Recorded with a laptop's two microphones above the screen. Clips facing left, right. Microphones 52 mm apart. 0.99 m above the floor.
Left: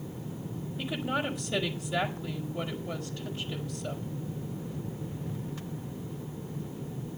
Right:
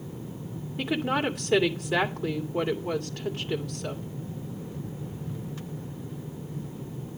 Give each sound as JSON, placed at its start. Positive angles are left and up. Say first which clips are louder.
{"t": 0.8, "sound": "a woman speaking", "louder": "right 5 dB", "side_deg": -75, "distance_m": 2.5}